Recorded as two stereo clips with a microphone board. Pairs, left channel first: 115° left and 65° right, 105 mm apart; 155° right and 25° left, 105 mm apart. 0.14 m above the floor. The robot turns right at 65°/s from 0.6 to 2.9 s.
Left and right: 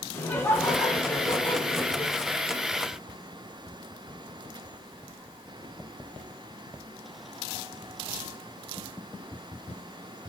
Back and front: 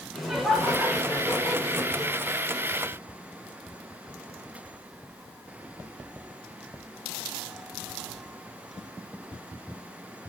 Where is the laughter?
110° left, 1.8 m; by 2.1 s 155° right, 1.8 m.